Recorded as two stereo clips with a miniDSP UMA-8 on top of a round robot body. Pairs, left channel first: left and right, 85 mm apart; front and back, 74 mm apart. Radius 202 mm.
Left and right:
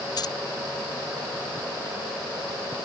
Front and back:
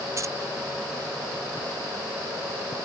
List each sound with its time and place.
0.2 s keys jangling: 130° left